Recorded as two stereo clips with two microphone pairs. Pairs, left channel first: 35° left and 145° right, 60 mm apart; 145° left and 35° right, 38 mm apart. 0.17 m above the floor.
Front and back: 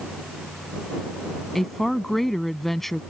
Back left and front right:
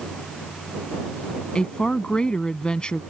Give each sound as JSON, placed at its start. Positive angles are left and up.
{"t": 1.6, "sound": "a woman speaking", "azimuth_deg": 115}